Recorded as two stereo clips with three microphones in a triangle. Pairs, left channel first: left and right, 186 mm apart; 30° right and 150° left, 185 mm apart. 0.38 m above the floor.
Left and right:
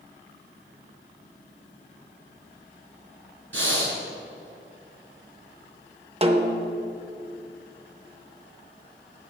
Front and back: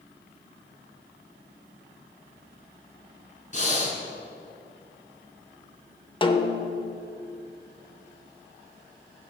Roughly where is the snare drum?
Right.